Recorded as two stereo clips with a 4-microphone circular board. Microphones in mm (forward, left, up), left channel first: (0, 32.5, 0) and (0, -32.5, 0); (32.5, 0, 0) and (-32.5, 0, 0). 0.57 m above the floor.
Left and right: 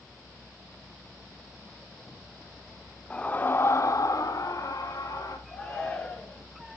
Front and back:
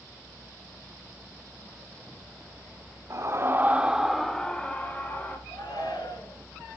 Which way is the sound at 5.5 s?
10° left.